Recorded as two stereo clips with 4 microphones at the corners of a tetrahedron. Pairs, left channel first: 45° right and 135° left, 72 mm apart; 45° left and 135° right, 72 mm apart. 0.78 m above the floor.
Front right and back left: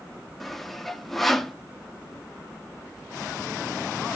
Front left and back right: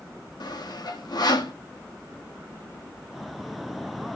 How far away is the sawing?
About 1.1 m.